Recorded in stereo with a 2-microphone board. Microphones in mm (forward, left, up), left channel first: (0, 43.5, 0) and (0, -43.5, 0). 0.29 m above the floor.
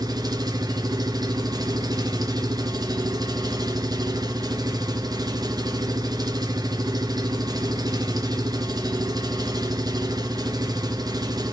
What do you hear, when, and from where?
0.0 s an engine running: 50° right (ahead or behind), 2 m